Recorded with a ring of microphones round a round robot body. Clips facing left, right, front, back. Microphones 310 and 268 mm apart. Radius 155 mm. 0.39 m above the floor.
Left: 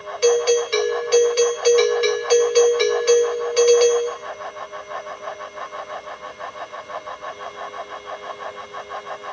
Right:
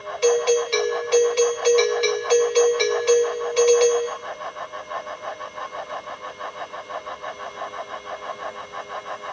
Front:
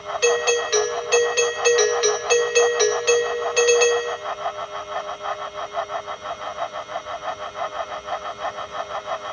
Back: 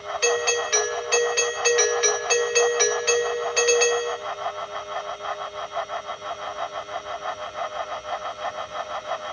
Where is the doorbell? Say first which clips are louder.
Left 2 dB, front 4 dB; 25° left, 2.5 m.